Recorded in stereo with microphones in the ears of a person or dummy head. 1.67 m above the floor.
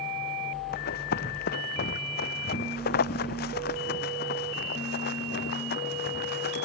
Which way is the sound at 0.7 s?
45° left (ahead or behind).